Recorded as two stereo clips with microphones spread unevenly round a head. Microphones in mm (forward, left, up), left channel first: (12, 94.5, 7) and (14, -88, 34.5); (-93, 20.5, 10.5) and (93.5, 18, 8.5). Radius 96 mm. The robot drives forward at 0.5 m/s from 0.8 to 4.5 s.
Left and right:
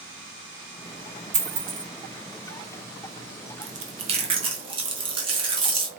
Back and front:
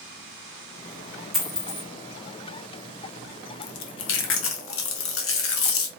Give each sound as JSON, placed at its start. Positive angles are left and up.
{"t": 1.3, "sound": "a dropped coin", "azimuth_deg": -90, "distance_m": 1.2}
{"t": 3.6, "sound": "chewing", "azimuth_deg": -140, "distance_m": 0.8}